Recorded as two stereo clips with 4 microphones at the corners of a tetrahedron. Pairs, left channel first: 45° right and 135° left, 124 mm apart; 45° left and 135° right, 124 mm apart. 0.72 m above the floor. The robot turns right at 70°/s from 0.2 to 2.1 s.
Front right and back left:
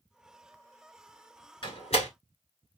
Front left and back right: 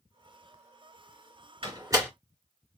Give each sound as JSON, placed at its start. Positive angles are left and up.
{"t": 1.6, "sound": "a door slam", "azimuth_deg": -95, "distance_m": 1.7}